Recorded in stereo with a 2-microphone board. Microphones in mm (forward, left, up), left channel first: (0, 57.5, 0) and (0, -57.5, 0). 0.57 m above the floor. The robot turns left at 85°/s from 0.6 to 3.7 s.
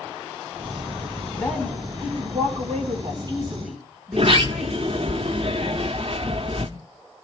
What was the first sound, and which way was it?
A woman speaking, 25° left.